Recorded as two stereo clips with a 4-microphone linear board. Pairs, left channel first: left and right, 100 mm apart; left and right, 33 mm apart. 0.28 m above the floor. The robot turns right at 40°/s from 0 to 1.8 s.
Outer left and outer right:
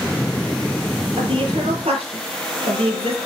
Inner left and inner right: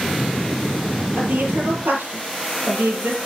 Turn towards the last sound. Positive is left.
turn(degrees=-80)